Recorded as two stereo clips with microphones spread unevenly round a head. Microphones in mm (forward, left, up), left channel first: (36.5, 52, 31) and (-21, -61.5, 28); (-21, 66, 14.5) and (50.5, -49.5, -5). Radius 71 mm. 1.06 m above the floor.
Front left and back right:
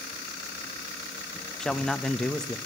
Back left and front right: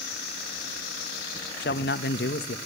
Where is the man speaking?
150° left, 1.0 m.